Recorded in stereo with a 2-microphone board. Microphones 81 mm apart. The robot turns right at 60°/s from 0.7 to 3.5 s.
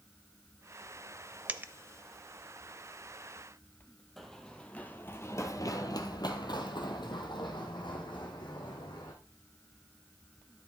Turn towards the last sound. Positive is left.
turn(degrees=70)  # may be behind; listen again after turning